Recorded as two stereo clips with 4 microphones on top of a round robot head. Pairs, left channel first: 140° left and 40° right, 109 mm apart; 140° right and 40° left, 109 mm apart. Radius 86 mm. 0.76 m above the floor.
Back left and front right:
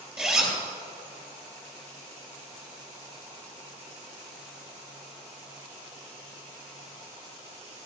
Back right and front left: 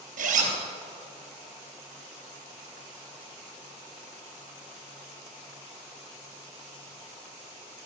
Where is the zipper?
40° left, 3.5 m.